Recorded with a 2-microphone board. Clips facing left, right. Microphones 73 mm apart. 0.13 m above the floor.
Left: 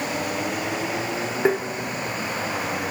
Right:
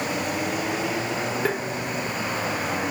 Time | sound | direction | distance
1.4 | tapping | 20° left (ahead or behind) | 1.3 m